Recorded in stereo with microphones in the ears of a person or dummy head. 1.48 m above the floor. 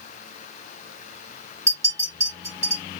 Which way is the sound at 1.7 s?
20° right (ahead or behind).